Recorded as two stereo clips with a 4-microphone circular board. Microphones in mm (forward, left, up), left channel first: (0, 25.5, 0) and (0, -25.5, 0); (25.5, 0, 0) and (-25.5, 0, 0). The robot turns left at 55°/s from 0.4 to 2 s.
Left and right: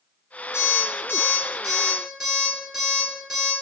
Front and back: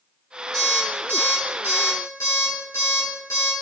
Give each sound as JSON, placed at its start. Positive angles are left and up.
{"t": 0.5, "sound": "an alarm clock", "azimuth_deg": 75, "distance_m": 1.9}